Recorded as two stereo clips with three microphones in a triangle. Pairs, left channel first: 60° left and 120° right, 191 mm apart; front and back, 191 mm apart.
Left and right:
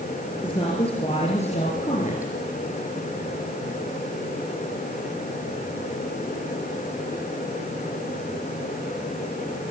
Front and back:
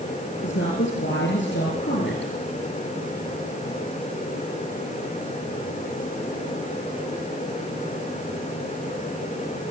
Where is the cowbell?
I don't hear a cowbell.